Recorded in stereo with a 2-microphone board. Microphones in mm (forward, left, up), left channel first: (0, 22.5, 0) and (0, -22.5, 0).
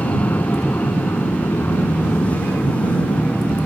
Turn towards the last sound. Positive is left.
turn(degrees=60)  # may be behind; listen again after turning